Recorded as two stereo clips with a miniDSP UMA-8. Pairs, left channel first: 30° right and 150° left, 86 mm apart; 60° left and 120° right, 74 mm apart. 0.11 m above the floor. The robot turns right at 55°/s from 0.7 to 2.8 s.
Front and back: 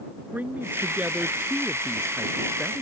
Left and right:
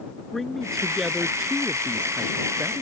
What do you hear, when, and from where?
0.3 s a man speaking: 140° left; by 2.8 s 105° right